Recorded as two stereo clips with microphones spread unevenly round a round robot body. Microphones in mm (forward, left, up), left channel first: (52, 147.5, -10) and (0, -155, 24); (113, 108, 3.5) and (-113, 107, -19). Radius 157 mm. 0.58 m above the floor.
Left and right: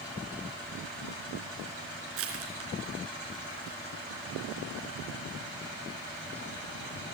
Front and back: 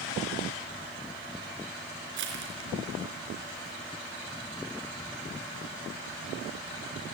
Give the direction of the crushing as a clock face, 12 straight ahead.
5 o'clock.